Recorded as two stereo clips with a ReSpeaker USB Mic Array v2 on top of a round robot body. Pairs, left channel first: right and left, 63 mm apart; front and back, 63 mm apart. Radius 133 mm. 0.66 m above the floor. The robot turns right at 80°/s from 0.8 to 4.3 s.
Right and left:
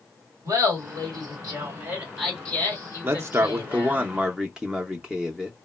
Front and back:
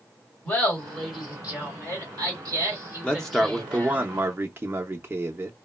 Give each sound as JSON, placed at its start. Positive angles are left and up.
{"t": 0.5, "sound": "laughter", "azimuth_deg": 60, "distance_m": 2.0}
{"t": 3.0, "sound": "a man speaking", "azimuth_deg": 60, "distance_m": 0.6}